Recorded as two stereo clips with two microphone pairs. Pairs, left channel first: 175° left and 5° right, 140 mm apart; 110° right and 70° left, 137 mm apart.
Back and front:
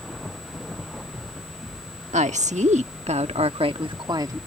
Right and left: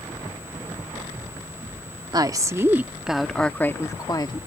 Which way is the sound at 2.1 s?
15° left.